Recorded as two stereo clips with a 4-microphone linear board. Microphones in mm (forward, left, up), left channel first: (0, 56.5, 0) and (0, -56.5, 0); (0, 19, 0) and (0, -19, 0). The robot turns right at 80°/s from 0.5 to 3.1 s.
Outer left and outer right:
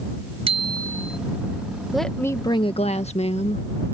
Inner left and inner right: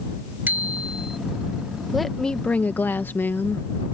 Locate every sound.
0.5 s a bicycle bell: 55° right; by 1.2 s straight ahead
1.9 s a woman speaking: 5° right; by 3.7 s 90° left